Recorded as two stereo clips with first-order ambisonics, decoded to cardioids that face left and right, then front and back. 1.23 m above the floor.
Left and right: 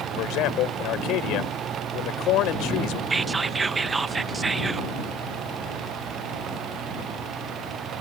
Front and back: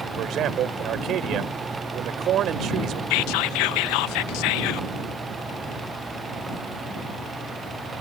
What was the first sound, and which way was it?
A man speaking, 130° left.